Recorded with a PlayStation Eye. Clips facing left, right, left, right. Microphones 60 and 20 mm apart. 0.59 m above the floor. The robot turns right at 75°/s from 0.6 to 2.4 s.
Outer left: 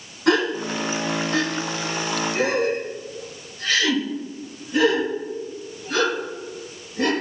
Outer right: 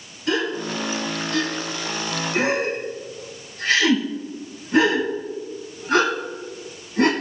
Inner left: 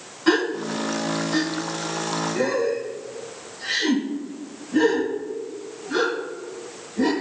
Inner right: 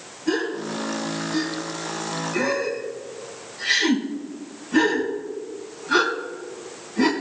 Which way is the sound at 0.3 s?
75° left (ahead or behind).